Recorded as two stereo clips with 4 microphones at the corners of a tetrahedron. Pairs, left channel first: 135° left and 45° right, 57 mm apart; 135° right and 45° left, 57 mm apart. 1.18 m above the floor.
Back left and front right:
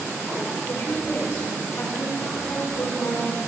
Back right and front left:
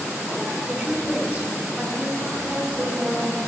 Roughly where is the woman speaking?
Left.